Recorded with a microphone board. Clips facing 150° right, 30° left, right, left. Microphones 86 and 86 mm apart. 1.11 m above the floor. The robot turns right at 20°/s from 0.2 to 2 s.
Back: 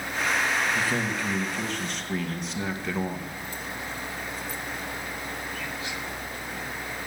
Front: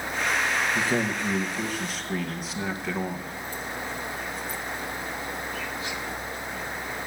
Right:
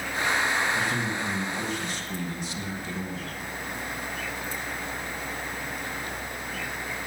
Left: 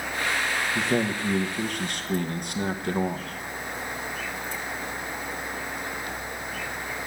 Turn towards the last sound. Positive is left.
turn(degrees=120)